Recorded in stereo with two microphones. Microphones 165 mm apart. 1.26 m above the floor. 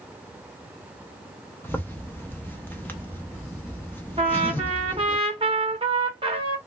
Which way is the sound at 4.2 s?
35° right (ahead or behind).